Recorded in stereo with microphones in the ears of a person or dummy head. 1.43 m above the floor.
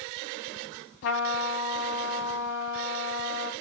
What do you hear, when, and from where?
1.0 s a trumpet: 60° left (ahead or behind), 2.5 m